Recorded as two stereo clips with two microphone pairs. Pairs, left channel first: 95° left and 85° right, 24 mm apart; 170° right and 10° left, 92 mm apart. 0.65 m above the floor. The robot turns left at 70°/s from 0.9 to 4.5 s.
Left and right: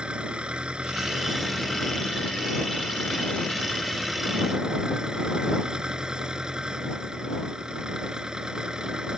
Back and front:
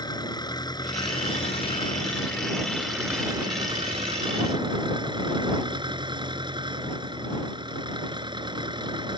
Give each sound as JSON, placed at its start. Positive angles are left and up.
{"t": 0.0, "sound": "an engine running", "azimuth_deg": -130}